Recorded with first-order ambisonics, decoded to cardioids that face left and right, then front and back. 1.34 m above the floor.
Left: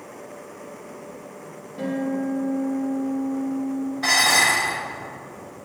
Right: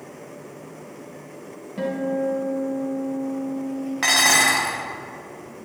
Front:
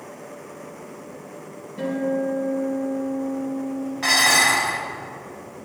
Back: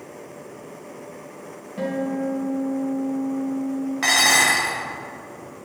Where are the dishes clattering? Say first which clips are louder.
Right 1 dB, even; 115° right, 1.5 m.